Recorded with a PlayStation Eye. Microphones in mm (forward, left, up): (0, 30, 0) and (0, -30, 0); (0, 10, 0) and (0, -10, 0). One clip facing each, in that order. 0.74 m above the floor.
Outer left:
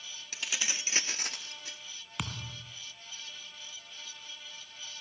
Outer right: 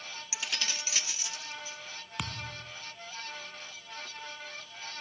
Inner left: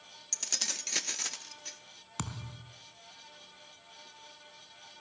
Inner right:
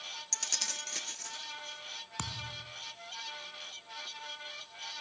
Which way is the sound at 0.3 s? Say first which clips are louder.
Even, inner left 1 dB; 10° right (ahead or behind).